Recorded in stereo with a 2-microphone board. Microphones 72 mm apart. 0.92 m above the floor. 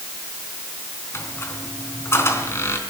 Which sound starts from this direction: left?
A squeak, at 1.1 s.